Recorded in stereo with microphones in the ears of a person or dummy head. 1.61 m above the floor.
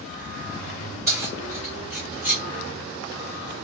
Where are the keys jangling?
20° right (ahead or behind), 2.5 m; by 2.4 s 10° right (ahead or behind), 1.7 m.